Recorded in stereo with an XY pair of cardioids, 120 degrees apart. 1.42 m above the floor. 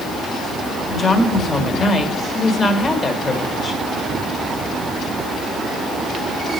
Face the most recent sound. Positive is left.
turn(degrees=30)